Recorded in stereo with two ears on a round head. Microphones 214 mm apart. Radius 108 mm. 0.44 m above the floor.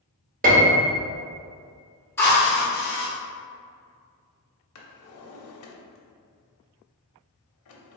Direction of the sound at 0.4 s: 35° right (ahead or behind).